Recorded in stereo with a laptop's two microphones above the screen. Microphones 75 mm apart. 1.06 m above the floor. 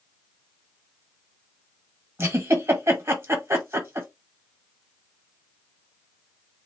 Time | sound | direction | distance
2.2 | a giggle | 35° right (ahead or behind) | 1.3 m